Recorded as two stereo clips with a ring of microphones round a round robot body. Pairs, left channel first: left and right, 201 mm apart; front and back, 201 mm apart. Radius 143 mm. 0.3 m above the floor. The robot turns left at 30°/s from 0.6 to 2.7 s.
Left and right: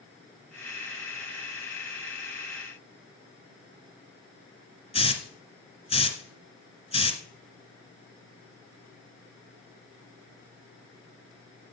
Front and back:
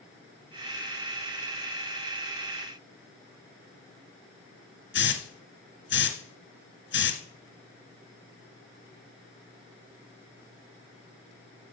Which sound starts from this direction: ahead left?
A hiss, at 4.9 s.